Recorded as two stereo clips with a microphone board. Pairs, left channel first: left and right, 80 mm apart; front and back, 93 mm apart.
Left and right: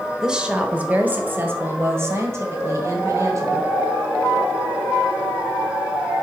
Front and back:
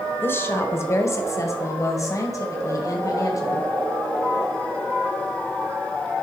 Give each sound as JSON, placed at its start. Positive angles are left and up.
{"t": 0.2, "sound": "a woman speaking", "azimuth_deg": -15, "distance_m": 1.2}